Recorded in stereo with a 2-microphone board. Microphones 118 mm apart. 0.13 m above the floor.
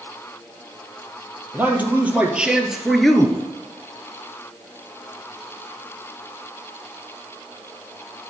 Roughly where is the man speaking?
Centre.